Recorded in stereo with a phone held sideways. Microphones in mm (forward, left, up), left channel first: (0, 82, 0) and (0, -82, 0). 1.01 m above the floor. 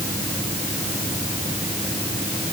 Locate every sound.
Only background noise.